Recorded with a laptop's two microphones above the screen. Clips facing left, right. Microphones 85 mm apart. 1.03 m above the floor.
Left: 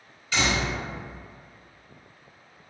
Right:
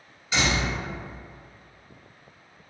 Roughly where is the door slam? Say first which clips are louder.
Even; centre.